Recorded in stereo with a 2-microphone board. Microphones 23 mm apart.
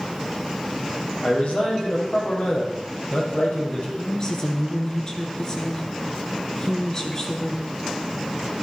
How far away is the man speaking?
About 5 m.